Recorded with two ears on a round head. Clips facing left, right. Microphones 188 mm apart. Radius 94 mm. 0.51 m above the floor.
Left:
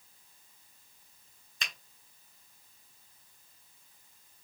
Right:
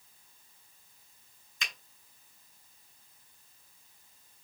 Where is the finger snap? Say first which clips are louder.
Even; 35° left (ahead or behind), 2.5 m.